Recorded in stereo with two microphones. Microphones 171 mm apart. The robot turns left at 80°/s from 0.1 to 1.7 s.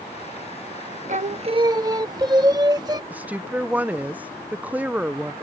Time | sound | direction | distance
1.1 | singing | 100° right | ?
3.1 | a woman speaking | 10° right (ahead or behind) | ?